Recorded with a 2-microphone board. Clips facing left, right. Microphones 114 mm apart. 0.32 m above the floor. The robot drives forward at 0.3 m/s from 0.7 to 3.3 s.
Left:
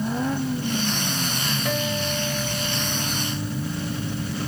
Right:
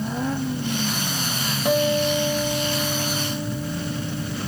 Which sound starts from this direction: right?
A guitar, at 1.6 s.